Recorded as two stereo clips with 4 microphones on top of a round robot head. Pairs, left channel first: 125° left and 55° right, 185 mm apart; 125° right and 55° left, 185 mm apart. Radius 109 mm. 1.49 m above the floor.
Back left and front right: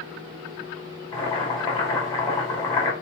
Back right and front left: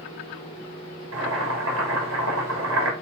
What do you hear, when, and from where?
1.1 s boiling: 60° left, 3 m